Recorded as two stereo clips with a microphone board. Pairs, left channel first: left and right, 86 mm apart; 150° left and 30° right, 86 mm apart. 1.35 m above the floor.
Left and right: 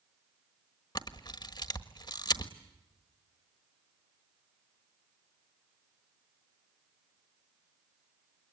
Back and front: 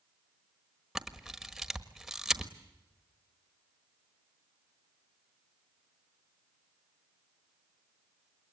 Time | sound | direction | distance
0.9 | a camera shutter | 55° left | 1.4 m